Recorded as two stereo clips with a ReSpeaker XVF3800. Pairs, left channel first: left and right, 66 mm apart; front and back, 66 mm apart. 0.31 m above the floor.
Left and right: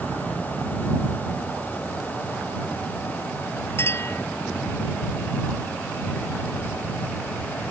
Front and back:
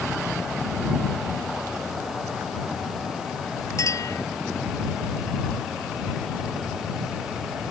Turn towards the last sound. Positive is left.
turn(degrees=40)